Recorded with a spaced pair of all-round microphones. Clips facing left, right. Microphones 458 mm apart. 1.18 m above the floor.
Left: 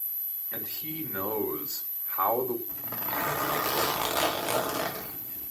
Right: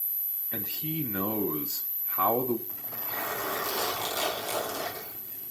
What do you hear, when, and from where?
0.5 s a man speaking: 45° right (ahead or behind), 1.3 m
2.7 s a zipper: 75° left (ahead or behind), 1.5 m